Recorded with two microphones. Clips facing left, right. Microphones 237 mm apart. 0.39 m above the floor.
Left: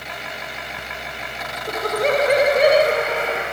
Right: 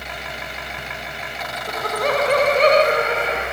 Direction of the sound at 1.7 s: 30° left (ahead or behind).